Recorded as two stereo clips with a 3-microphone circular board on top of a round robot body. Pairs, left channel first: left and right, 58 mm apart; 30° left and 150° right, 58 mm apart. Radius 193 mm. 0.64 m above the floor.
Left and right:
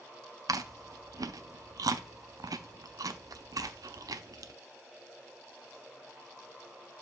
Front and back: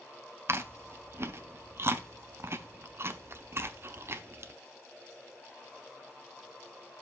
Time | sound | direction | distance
0.5 | chewing | 105° right | 0.9 m